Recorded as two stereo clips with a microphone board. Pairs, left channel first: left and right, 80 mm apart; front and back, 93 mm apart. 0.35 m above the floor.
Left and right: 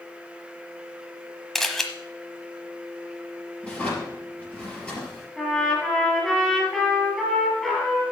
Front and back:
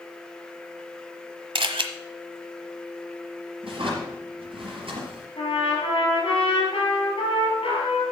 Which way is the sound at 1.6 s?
175° left.